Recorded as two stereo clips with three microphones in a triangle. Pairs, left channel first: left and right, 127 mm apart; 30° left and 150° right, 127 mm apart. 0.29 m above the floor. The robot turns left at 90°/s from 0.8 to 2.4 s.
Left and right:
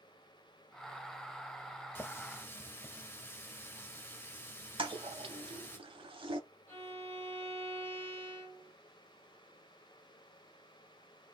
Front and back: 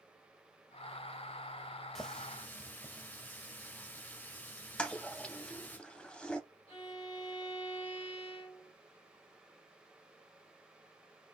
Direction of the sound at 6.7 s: 25° left.